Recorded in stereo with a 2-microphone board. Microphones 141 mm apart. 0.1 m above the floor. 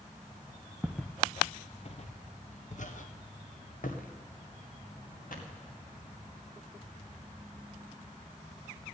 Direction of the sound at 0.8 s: 5° right (ahead or behind).